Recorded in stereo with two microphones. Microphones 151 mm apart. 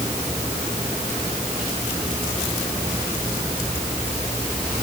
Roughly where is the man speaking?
No man speaking in this recording.